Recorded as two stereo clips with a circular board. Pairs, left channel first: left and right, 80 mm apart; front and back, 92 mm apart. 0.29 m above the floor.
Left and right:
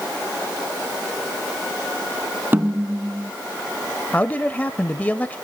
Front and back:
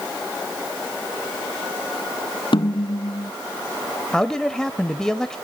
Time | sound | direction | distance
2.5 | a snare drum | 25° right | 0.8 m
4.1 | a man speaking | 70° left | 0.9 m